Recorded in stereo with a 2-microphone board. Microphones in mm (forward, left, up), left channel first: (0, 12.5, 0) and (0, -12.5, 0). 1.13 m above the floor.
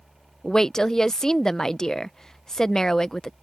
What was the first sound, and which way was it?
A woman speaking, 25° left (ahead or behind).